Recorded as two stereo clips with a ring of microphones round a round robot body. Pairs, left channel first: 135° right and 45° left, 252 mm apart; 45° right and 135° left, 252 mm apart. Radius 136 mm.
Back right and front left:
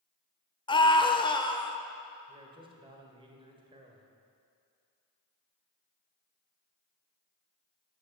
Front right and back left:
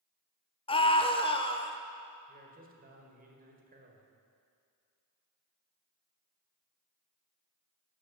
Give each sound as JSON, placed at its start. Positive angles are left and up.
{"t": 0.7, "sound": "a scream", "azimuth_deg": -90, "distance_m": 1.1}
{"t": 2.3, "sound": "a man speaking", "azimuth_deg": 105, "distance_m": 1.8}